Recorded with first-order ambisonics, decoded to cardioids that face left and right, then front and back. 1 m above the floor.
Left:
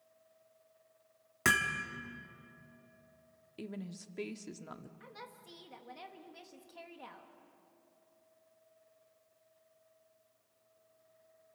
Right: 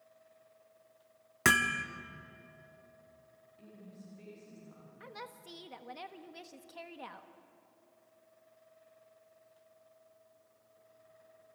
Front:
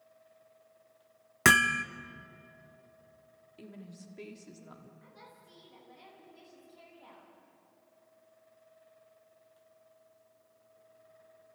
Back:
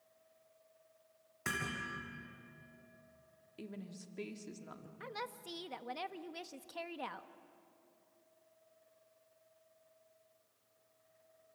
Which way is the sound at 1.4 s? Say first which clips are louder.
Right 3 dB, front 16 dB; 10° right.